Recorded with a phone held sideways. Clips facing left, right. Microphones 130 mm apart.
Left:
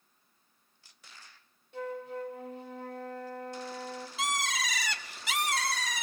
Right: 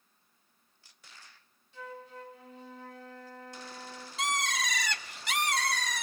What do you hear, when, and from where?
1.7 s a flute: 60° left (ahead or behind), 1.7 m
4.2 s a bird: 5° left (ahead or behind), 1.4 m